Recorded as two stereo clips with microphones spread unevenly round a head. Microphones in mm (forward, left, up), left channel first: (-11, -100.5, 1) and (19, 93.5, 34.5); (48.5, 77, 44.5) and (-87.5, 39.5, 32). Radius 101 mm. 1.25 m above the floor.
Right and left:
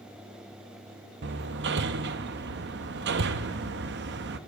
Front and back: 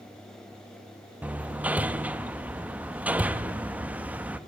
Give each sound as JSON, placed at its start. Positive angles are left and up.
{"t": 1.2, "sound": "hammering", "azimuth_deg": 115, "distance_m": 1.2}